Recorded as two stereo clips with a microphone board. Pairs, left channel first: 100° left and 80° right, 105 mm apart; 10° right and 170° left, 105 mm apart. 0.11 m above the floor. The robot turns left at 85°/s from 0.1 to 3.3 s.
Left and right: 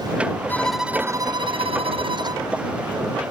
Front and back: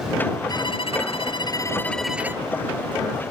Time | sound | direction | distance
0.5 | a violin | 30° left | ?